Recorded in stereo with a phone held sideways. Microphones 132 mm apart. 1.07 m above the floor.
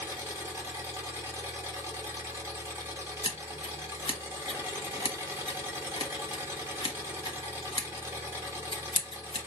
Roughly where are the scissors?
Left.